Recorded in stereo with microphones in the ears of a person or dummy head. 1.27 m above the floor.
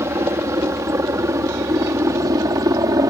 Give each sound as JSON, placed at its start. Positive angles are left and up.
{"t": 0.0, "sound": "a helicopter", "side_deg": -15}